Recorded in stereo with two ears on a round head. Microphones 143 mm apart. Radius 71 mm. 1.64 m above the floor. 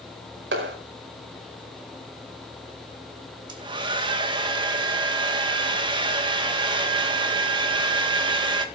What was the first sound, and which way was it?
A clap, 80° right.